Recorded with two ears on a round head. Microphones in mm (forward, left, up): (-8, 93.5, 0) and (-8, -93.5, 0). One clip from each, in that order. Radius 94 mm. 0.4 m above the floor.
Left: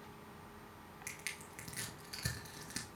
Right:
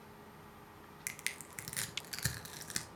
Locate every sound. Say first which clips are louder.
1.1 s crushing: right 4 dB; 35° right (ahead or behind), 0.8 m